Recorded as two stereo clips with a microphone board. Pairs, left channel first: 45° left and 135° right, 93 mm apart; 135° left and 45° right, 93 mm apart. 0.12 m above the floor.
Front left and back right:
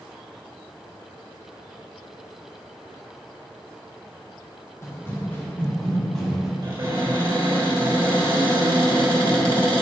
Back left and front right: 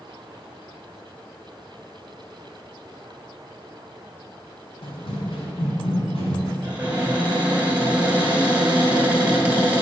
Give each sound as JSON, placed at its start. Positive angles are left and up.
{"t": 4.8, "sound": "running footsteps", "azimuth_deg": 110, "distance_m": 1.9}
{"t": 6.6, "sound": "a cupboard door", "azimuth_deg": -115, "distance_m": 2.5}